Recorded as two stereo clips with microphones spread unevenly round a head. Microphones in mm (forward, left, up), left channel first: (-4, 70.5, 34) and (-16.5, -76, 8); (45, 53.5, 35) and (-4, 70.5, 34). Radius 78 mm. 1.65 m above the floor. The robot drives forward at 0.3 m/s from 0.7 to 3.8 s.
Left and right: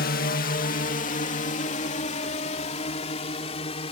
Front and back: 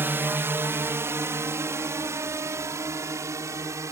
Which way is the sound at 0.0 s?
115° left.